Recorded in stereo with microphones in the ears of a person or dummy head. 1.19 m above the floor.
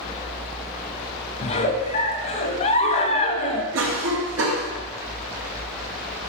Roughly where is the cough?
Right.